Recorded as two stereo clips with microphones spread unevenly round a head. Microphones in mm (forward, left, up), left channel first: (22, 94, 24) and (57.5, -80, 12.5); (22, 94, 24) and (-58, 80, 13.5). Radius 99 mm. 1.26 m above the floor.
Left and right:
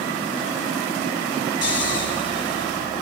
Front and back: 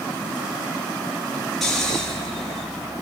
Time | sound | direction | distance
1.6 | snoring | 95° left | 8 m